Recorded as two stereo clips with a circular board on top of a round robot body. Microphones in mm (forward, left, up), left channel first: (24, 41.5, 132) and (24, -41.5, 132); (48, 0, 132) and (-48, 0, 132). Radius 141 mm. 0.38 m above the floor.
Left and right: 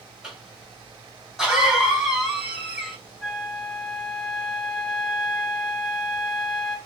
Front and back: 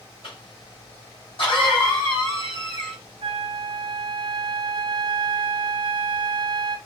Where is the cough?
5° right, 2.5 m.